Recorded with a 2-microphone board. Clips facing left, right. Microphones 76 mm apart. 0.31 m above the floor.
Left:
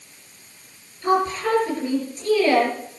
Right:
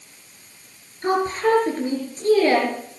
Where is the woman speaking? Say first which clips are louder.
Even; 35° right (ahead or behind), 5 m.